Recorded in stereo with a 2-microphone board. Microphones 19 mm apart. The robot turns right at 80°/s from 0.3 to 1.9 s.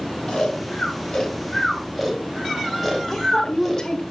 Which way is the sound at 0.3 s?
50° left (ahead or behind).